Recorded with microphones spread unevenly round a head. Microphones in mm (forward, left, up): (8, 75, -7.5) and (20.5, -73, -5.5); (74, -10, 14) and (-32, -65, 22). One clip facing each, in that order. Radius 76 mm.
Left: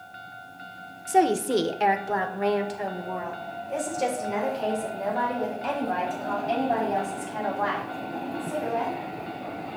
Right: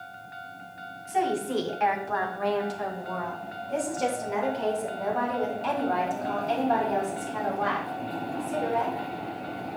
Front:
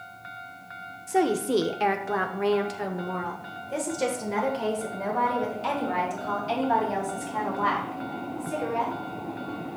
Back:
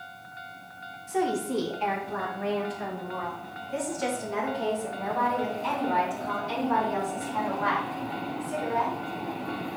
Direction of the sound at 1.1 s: 85° left.